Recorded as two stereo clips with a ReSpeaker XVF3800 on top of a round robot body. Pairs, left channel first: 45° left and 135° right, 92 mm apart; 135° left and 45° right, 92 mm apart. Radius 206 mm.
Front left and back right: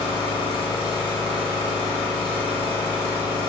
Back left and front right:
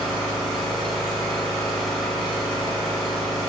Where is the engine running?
50° left, 1.0 m.